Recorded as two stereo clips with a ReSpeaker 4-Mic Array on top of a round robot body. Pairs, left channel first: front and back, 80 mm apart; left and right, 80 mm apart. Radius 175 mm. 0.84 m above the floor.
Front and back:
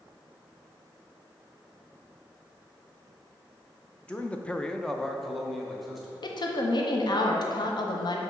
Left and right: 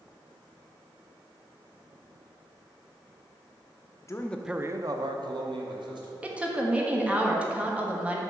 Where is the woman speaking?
15° right, 1.0 m.